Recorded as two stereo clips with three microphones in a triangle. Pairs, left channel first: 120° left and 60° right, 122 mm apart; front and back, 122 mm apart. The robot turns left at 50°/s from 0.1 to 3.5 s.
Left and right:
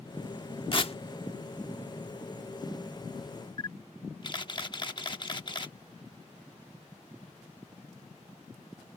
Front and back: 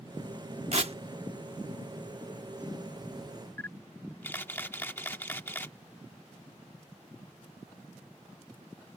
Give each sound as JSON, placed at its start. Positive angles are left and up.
{"t": 0.7, "sound": "tearing paper", "azimuth_deg": 160}
{"t": 3.6, "sound": "a camera shutter", "azimuth_deg": 70}